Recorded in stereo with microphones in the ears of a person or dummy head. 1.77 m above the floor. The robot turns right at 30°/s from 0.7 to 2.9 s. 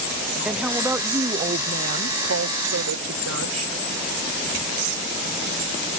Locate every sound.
0.5 s a woman speaking: 175° right; by 3.7 s 110° right